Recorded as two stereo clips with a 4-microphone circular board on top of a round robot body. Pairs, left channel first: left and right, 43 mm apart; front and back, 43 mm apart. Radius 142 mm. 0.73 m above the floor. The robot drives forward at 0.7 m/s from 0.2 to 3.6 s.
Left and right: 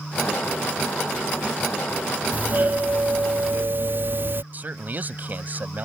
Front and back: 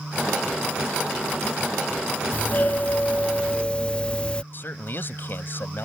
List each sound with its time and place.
2.3 s a doorbell: 45° right; by 4.4 s 65° right
4.5 s a man speaking: 45° right